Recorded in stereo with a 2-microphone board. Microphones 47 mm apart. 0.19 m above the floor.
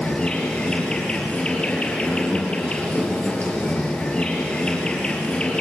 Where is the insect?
20° left (ahead or behind), 5 m.